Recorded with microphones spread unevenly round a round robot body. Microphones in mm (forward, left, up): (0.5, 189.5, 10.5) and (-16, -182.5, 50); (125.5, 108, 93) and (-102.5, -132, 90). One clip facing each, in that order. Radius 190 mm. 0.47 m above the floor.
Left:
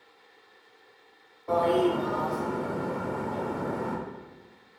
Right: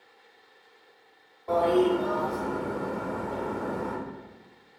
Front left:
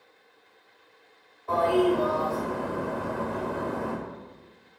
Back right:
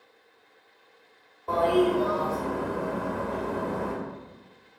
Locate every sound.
1.5 s a toilet flushing: 175° left, 0.9 m